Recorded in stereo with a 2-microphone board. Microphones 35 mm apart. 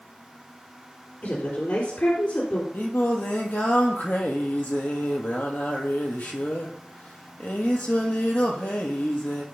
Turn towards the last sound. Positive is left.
turn(degrees=60)  # may be behind; listen again after turning